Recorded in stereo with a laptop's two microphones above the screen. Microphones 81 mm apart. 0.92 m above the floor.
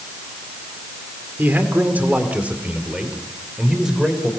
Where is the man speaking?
25° right (ahead or behind), 2.5 m; by 4.3 s 5° right (ahead or behind), 3.5 m.